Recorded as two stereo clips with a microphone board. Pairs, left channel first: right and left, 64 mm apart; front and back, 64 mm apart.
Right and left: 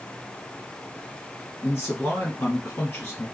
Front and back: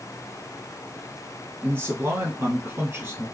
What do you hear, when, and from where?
1.6 s a man speaking: 135° right, 2 m